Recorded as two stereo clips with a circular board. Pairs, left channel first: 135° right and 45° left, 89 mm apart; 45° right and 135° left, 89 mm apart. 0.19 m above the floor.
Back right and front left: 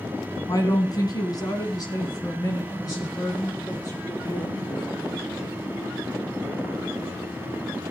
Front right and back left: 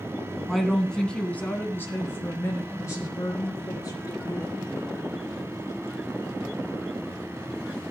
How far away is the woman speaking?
About 2 m.